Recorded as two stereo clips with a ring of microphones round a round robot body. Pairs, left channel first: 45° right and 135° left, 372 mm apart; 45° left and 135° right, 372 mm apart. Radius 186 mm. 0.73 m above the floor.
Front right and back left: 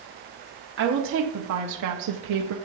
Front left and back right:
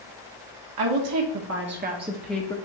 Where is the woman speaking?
165° right, 1.4 m; by 2.5 s 120° left, 0.9 m.